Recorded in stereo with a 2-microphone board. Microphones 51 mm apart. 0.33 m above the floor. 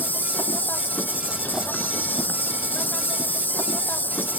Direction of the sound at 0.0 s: 35° left (ahead or behind).